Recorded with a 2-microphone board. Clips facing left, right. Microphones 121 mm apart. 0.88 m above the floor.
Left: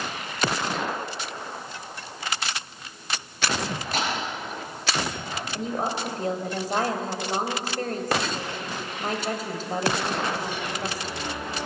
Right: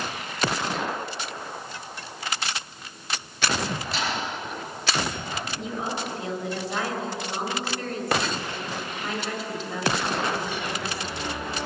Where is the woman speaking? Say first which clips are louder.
Left 5 dB; 40° left (ahead or behind), 4 m.